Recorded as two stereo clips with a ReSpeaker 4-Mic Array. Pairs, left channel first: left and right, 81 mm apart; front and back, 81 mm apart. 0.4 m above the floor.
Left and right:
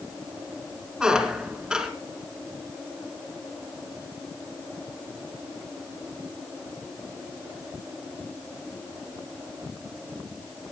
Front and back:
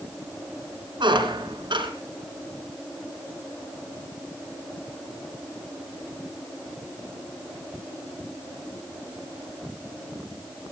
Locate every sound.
1.0 s a squeak: 170° right, 3 m